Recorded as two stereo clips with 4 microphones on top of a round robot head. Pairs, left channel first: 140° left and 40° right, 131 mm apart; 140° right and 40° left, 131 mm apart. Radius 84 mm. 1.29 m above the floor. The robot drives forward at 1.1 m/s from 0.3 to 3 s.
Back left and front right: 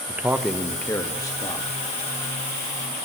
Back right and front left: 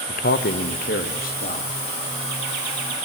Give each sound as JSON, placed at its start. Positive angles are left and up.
{"t": 0.1, "sound": "a man speaking", "azimuth_deg": -120, "distance_m": 0.8}